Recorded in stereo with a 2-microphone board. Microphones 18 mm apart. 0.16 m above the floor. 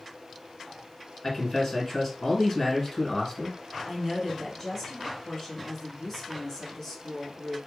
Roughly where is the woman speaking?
Left.